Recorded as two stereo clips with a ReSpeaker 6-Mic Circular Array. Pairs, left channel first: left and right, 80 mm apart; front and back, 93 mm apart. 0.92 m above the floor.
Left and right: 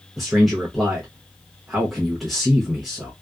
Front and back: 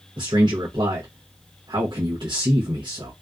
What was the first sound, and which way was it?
A man speaking, straight behind.